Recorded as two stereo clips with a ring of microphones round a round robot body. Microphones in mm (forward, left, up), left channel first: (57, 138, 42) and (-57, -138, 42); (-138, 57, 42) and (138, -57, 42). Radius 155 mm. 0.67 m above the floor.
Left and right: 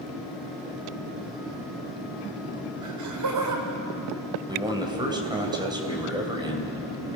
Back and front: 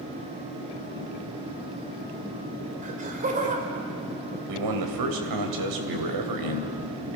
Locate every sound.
2.8 s laughter: 85° right, 3.5 m
4.5 s a man speaking: 35° right, 3 m